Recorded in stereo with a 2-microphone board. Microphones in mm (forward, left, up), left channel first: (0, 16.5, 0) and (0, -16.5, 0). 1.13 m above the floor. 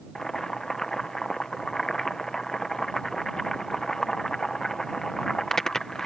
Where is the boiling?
10° left (ahead or behind).